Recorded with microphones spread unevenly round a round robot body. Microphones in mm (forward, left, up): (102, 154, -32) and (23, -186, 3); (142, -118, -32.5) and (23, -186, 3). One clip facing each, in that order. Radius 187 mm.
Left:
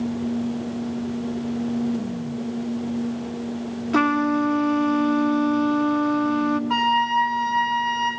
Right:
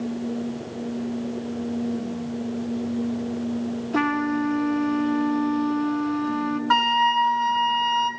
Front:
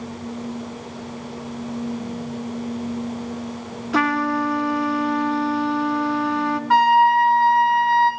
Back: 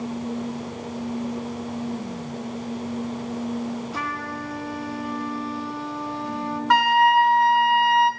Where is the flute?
145° right, 1.1 m.